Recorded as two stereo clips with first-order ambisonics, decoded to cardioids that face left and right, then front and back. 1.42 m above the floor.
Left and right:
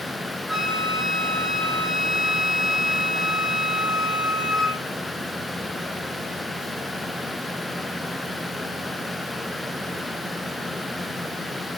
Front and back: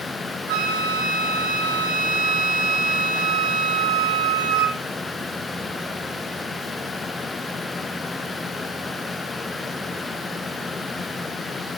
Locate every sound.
0.5 s a flute: straight behind, 3.5 m